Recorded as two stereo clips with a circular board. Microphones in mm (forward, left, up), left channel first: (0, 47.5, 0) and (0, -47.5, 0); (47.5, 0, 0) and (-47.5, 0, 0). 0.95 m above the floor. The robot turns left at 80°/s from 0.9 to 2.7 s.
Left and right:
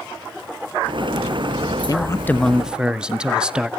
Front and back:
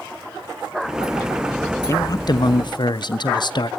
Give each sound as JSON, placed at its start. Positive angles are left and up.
{"t": 1.9, "sound": "a man speaking", "azimuth_deg": 55, "distance_m": 0.9}